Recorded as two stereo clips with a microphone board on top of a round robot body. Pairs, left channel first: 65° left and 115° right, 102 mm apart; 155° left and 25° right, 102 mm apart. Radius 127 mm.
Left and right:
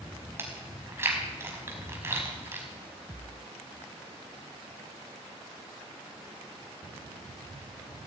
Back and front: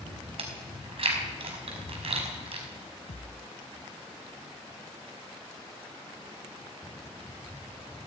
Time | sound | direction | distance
0.4 | chewing | 45° right | 4.5 m
3.1 | a thud | 175° left | 1.4 m